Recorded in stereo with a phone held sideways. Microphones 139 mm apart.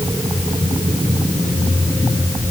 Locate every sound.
Only background noise.